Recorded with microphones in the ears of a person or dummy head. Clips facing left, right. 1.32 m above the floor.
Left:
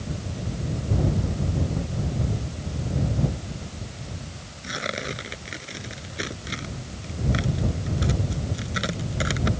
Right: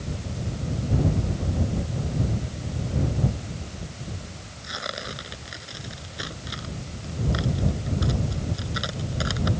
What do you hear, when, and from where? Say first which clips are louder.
4.6 s tearing paper: left 4 dB; 35° left (ahead or behind)